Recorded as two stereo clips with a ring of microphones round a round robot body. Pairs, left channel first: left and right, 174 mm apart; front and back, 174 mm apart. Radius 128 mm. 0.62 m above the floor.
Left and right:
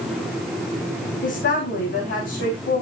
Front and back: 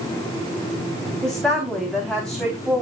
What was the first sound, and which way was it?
A woman speaking, 85° left.